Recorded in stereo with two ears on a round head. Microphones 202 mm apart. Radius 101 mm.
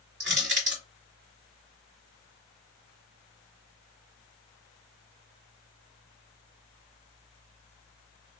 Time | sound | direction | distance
0.2 | crushing | 50° right (ahead or behind) | 1.9 m